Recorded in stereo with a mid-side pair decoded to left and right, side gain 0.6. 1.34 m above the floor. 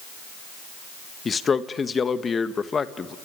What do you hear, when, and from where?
1.2 s a man speaking: 30° left, 1.7 m